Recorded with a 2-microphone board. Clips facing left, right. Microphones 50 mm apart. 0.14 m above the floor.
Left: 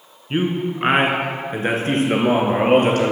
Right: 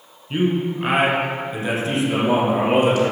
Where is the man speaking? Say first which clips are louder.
Right 1 dB; 30° left (ahead or behind), 1.5 m; by 3.1 s 60° left (ahead or behind), 2.5 m.